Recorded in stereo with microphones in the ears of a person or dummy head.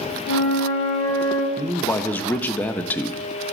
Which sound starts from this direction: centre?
A man speaking, at 1.6 s.